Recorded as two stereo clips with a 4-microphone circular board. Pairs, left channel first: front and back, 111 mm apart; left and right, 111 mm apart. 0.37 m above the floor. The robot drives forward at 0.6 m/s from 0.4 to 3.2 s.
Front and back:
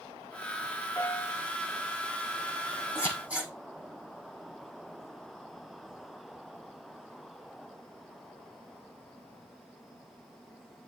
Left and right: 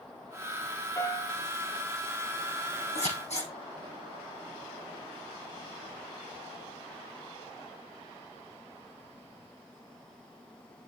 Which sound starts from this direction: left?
Scissors, at 3.0 s.